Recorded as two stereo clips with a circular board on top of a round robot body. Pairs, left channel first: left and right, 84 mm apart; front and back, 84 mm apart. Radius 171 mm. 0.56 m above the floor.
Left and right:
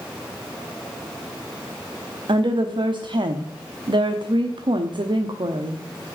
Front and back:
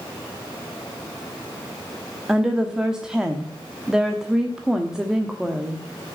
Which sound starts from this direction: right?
A woman speaking, at 2.3 s.